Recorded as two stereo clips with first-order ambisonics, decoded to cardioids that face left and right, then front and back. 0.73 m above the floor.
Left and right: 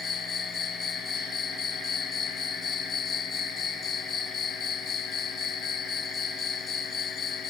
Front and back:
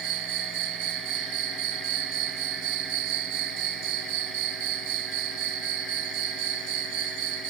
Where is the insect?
160° left.